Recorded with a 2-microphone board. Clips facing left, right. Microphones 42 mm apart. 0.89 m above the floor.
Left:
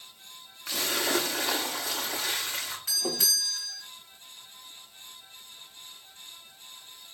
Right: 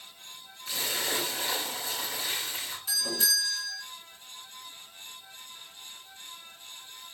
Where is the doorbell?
55° left (ahead or behind), 2.5 m.